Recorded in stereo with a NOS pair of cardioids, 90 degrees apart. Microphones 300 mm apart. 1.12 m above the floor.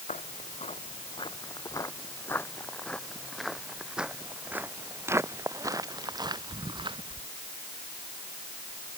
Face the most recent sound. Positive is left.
turn(degrees=-15)